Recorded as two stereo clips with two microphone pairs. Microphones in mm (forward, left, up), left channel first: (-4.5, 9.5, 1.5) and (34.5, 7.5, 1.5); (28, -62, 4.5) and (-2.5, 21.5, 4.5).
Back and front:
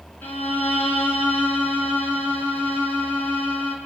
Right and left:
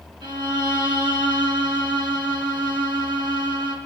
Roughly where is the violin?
Behind left.